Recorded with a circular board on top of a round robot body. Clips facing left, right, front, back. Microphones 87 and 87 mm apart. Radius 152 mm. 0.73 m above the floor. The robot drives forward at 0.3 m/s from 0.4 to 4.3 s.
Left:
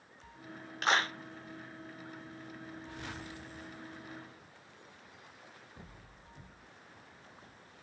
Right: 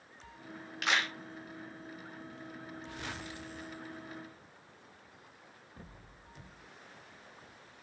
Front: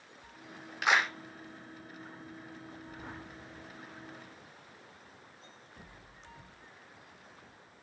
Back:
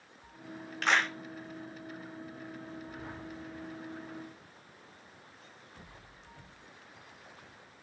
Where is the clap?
75° left, 0.8 m; by 1.1 s 85° left, 0.8 m.